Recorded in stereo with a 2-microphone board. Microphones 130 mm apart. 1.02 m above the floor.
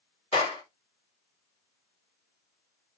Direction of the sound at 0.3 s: 45° left (ahead or behind).